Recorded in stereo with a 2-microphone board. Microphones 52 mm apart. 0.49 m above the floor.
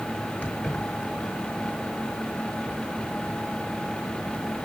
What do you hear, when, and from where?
0.4 s keys jangling: 35° left (ahead or behind), 5.5 m